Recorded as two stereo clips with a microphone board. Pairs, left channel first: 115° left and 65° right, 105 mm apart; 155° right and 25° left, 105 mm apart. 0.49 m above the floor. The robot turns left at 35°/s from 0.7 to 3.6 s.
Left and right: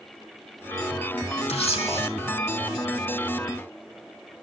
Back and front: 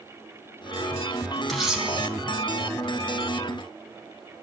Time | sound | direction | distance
1.5 | a camera shutter | 115° left | 3.5 m